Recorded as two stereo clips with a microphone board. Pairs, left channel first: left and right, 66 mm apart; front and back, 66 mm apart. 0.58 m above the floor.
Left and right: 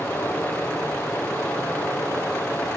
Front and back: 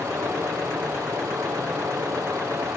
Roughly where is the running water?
Behind left.